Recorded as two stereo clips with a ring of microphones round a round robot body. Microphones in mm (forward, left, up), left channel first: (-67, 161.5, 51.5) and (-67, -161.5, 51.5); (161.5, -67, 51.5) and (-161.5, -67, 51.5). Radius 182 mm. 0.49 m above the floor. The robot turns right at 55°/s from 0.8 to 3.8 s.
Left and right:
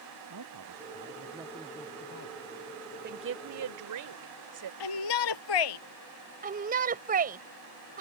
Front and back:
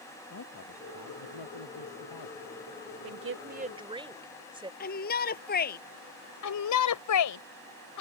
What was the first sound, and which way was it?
A man speaking, 40° right.